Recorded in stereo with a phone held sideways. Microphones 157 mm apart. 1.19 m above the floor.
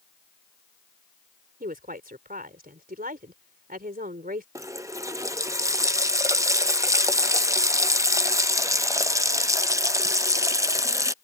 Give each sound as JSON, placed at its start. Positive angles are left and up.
{"t": 1.6, "sound": "a woman speaking", "side_deg": -60}
{"t": 4.5, "sound": "a running tap", "side_deg": -20}